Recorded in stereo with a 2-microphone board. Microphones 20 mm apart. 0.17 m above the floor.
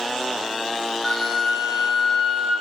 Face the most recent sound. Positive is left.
turn(degrees=40)  # may be behind; listen again after turning